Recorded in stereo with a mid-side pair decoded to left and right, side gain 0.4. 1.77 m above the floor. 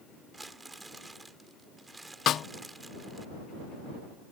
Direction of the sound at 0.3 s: 25° right.